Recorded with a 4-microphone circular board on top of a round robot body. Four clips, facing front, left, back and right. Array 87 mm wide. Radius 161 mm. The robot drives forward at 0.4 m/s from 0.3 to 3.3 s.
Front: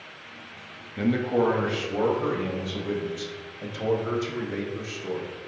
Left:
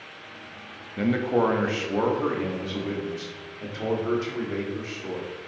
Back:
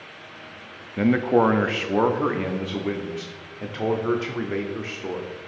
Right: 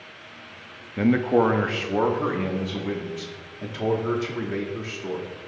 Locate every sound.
1.0 s a man speaking: 150° right, 0.7 m; by 5.3 s 175° right, 1.4 m